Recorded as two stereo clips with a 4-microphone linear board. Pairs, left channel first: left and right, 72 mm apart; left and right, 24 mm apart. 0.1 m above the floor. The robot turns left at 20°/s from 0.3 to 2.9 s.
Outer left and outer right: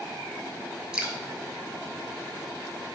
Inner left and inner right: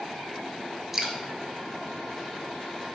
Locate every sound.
0.9 s dripping: 10° right (ahead or behind), 0.7 m